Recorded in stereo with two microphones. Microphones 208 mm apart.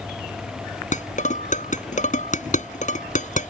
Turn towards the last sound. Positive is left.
turn(degrees=40)  # may be behind; listen again after turning